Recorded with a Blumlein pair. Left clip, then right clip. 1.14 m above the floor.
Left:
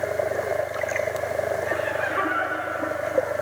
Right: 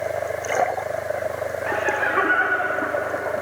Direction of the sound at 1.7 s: 20° right.